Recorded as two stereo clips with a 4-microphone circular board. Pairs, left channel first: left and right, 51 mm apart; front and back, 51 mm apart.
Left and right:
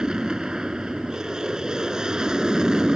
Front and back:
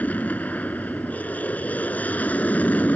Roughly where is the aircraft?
Ahead right.